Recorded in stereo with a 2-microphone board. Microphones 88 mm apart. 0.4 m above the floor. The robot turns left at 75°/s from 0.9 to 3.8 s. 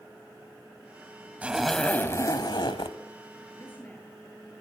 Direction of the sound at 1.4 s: 160° right.